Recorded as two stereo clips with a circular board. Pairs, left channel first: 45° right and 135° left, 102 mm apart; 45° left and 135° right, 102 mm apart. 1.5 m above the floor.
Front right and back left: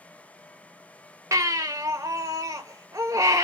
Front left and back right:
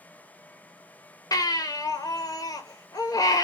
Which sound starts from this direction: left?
A baby crying, at 1.3 s.